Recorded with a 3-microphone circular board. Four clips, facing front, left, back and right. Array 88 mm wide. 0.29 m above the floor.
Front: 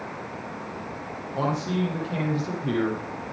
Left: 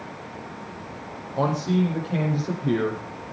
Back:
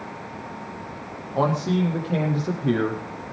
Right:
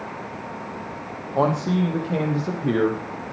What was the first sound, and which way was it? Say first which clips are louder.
A man speaking: right 2 dB, back 4 dB; 120° right.